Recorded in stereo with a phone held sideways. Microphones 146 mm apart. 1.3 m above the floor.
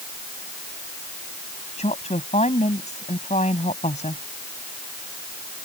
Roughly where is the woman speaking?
Left.